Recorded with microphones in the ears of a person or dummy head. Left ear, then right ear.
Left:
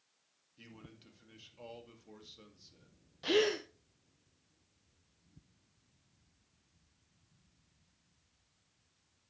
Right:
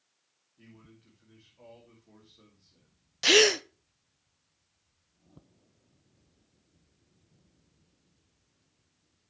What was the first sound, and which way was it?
A man speaking, 80° left.